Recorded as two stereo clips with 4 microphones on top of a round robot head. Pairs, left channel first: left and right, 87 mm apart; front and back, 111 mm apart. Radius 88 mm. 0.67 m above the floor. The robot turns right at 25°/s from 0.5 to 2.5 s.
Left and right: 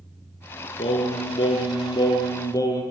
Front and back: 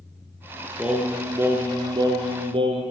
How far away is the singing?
About 3.5 m.